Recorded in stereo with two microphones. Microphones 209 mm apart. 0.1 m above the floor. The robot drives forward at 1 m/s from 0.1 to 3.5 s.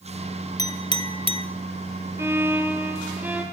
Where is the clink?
15° left (ahead or behind), 1.7 m; by 1.4 s 25° left (ahead or behind), 1.1 m.